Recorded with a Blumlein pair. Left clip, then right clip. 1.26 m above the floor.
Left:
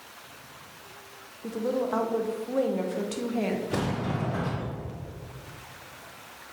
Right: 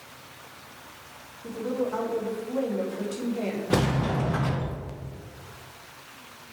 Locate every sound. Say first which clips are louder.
1.4 s a woman speaking: left 1 dB; 20° left, 1.2 m
3.7 s a sliding door: right 4 dB; 35° right, 1.0 m